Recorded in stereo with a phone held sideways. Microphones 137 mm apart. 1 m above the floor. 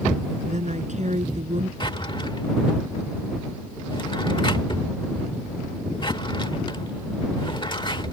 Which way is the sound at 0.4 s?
60° right (ahead or behind).